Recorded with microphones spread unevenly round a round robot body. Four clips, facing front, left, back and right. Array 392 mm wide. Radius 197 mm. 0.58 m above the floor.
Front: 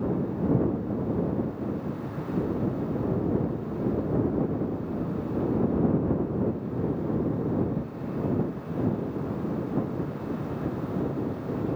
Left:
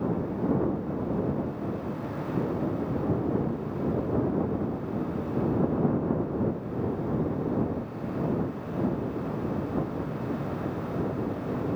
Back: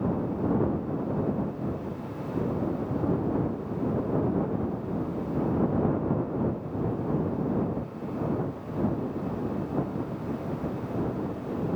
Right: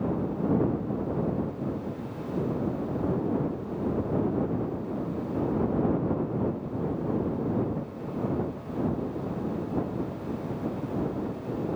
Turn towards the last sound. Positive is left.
No sound to turn to.